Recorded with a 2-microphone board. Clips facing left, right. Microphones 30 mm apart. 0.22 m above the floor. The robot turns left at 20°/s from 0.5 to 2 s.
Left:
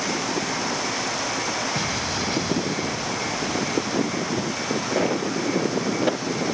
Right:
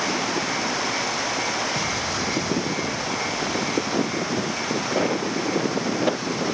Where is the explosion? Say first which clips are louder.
Right 1 dB; 20° left (ahead or behind), 1.2 m.